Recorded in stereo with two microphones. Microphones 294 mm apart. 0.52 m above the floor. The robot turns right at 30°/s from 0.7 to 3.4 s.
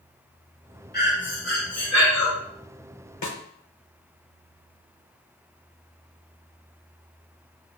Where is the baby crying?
No baby crying in this recording.